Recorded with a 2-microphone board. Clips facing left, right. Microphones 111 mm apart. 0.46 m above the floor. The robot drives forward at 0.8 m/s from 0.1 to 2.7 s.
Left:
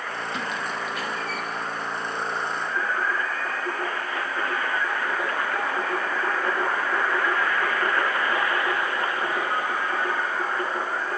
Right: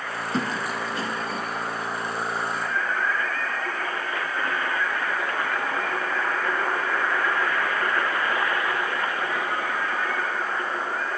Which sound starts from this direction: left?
Singing, at 2.5 s.